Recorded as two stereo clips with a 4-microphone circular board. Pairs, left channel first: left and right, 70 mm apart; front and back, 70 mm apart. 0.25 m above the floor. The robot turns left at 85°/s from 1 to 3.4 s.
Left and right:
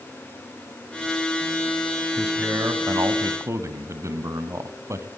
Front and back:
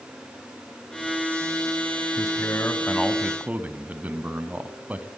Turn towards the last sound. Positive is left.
turn(degrees=-120)